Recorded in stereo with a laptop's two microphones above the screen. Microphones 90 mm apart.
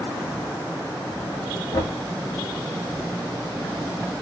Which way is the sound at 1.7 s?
45° left (ahead or behind).